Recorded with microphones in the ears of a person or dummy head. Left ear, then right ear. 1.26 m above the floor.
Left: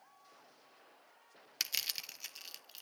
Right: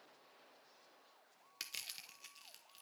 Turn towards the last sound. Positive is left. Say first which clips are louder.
# left 10 dB
turn(degrees=25)  # may be behind; listen again after turning